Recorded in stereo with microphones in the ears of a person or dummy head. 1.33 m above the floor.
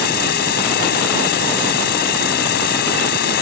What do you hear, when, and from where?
0.0 s an insect: 55° left (ahead or behind)